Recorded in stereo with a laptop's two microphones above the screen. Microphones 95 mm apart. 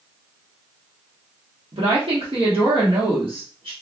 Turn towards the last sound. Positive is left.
turn(degrees=-70)  # may be behind; listen again after turning